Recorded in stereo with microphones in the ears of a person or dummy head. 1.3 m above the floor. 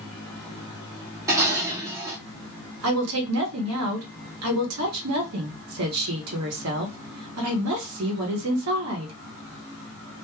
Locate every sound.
1.3 s dishes clattering: 10° right (ahead or behind), 0.8 m
2.8 s a woman speaking: 75° right (ahead or behind), 1.2 m